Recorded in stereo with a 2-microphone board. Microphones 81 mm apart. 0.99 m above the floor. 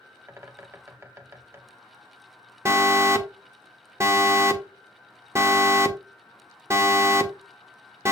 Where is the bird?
35° right (ahead or behind), 0.6 m.